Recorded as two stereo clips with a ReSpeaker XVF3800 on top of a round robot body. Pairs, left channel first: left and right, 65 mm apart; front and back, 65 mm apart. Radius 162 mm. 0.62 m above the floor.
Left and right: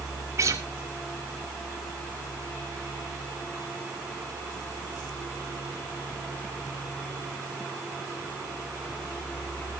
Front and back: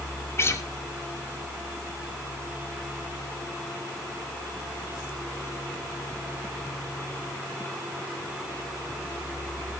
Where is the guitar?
50° right, 3 m.